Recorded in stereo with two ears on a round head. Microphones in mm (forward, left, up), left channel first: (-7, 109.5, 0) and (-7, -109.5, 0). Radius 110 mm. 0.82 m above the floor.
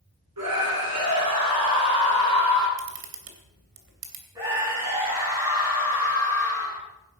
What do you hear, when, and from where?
0.4 s a scream: 85° right, 8.5 m
2.8 s a camera shutter: 55° right (ahead or behind), 2.5 m
4.3 s a scream: 15° right (ahead or behind), 5 m